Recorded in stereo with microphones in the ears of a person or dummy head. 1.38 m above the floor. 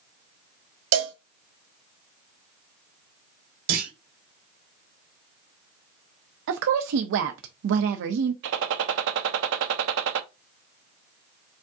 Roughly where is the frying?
I don't hear frying.